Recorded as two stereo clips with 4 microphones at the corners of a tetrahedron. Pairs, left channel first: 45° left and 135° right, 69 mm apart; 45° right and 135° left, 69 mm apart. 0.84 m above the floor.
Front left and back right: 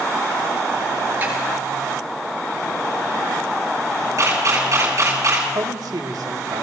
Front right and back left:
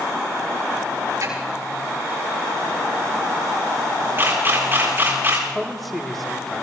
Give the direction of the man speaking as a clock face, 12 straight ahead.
4 o'clock.